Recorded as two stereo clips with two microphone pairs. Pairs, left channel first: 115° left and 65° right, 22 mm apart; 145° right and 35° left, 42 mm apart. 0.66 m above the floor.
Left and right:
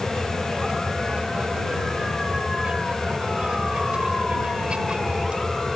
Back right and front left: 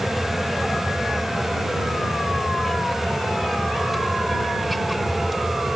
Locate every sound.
0.0 s an aircraft: 55° right